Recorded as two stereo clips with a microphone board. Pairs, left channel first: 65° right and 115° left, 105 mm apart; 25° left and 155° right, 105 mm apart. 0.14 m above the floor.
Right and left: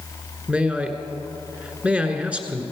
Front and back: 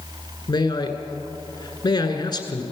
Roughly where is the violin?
I don't hear a violin.